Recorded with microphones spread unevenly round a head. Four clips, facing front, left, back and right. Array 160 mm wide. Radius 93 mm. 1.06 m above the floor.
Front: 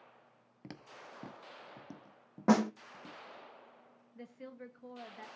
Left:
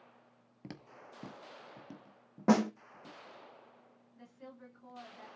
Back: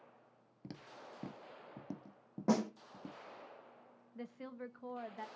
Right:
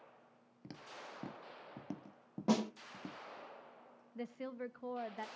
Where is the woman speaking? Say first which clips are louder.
Right 9 dB, back 2 dB; 115° right, 1.2 m.